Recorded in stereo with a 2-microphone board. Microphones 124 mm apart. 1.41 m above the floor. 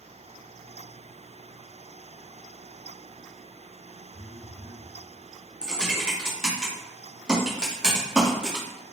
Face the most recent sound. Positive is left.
turn(degrees=-10)  # may be behind; listen again after turning